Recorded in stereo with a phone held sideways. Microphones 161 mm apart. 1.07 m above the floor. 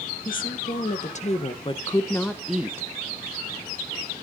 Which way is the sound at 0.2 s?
60° left (ahead or behind).